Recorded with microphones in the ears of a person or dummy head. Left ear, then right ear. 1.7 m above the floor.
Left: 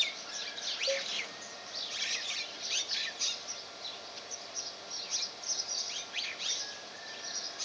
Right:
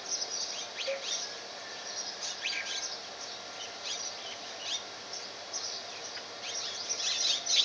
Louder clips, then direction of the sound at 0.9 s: Left 2 dB; 5° left (ahead or behind).